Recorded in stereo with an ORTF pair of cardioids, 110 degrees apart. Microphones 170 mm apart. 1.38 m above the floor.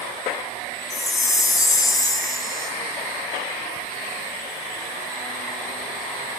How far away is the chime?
About 1.3 m.